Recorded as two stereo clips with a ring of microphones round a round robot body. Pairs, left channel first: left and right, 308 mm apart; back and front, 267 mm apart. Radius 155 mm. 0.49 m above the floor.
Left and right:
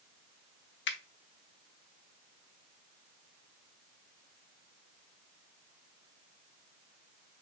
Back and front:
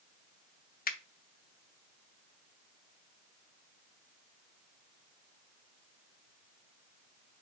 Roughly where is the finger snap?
Behind left.